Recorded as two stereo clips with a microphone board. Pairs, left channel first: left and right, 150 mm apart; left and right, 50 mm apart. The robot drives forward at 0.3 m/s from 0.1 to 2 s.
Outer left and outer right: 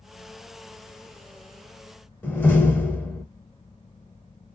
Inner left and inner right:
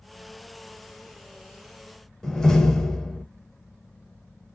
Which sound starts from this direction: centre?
A door slam, at 2.2 s.